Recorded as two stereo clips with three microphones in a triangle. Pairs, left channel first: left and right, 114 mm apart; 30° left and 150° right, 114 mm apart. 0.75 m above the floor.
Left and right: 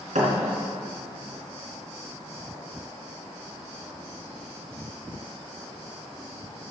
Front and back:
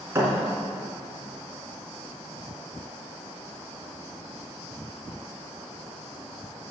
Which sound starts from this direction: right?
A thud, at 0.1 s.